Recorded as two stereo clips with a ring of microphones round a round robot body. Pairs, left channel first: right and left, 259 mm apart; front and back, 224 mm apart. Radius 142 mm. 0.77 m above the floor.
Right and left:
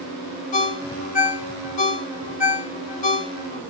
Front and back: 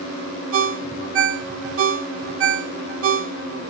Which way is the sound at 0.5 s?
150° right.